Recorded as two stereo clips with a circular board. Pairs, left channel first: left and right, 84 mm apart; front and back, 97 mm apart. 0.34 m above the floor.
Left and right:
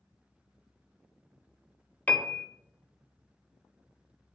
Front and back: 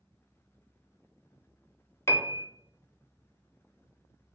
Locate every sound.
2.1 s a piano: 30° left, 0.5 m